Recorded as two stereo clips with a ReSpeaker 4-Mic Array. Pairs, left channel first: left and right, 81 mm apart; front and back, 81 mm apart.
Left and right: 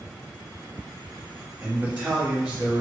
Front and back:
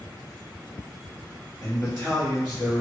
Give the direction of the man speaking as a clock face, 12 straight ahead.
1 o'clock.